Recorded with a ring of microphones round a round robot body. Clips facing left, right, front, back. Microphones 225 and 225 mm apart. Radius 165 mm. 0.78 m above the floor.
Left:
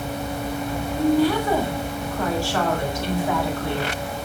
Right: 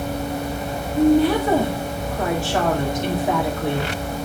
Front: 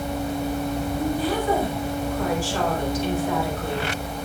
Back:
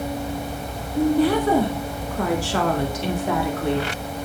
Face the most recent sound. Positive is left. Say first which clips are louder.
# right 4 dB, back 9 dB
turn(degrees=-160)